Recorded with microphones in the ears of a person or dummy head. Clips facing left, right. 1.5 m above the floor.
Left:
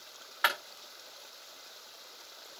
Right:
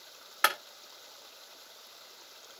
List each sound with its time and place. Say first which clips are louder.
0.4 s a clap: right 2 dB; 35° right (ahead or behind), 1.5 m